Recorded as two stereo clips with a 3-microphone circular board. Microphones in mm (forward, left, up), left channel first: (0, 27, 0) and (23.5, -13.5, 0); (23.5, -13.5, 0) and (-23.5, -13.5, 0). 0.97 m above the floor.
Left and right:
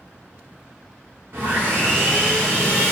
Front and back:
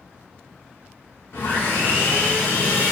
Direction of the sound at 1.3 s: 30° right.